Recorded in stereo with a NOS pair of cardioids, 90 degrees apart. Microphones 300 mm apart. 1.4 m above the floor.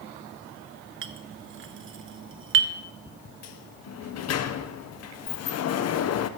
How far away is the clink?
About 0.9 m.